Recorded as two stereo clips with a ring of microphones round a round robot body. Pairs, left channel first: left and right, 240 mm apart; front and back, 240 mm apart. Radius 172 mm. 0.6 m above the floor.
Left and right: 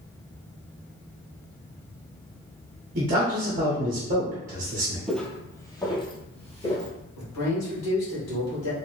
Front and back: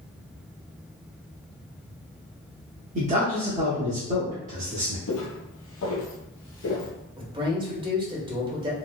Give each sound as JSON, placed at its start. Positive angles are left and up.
{"t": 3.0, "sound": "a man speaking", "azimuth_deg": -135, "distance_m": 0.7}
{"t": 5.1, "sound": "footsteps", "azimuth_deg": 0, "distance_m": 0.9}
{"t": 7.2, "sound": "a man speaking", "azimuth_deg": 110, "distance_m": 1.8}